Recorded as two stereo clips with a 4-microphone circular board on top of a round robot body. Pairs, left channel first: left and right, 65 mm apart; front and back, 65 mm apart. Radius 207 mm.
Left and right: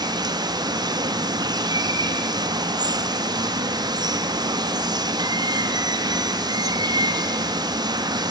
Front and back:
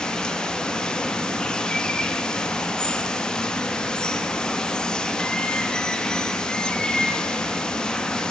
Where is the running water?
80° right, 1.2 m.